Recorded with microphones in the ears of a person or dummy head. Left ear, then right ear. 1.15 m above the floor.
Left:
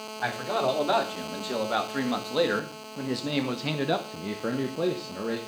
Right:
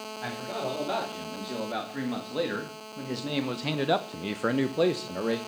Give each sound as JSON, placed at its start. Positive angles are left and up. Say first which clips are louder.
{"t": 0.2, "sound": "a man speaking", "louder": "left 7 dB", "side_deg": 40, "distance_m": 3.5}